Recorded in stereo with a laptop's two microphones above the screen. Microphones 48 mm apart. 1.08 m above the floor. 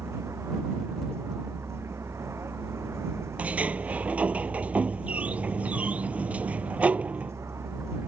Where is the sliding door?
25° right (ahead or behind).